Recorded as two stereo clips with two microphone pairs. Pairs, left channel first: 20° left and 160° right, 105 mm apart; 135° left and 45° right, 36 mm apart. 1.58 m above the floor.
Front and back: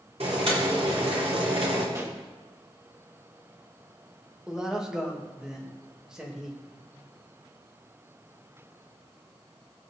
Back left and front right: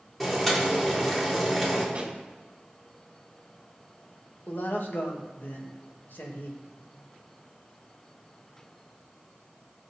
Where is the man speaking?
115° left, 2 m.